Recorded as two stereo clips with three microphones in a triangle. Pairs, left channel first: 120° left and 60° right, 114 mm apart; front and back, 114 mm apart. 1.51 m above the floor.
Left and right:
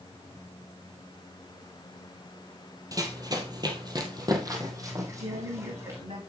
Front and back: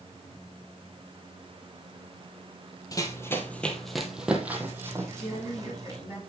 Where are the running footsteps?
30° right, 1.8 m; by 6.0 s 125° right, 4 m.